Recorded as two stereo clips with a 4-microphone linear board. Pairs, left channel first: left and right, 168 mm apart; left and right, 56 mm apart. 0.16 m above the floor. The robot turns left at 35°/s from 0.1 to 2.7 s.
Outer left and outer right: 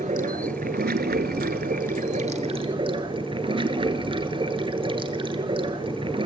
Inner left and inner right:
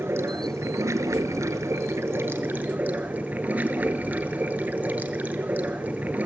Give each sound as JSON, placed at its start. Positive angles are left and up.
{"t": 0.0, "sound": "running water", "azimuth_deg": -55, "distance_m": 0.8}